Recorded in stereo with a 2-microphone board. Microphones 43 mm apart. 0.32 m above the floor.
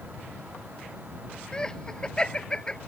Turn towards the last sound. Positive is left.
turn(degrees=20)  # may be behind; listen again after turning